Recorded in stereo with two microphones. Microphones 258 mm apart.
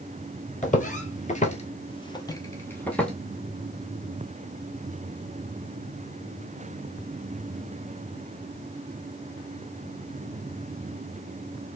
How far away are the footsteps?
About 1.1 m.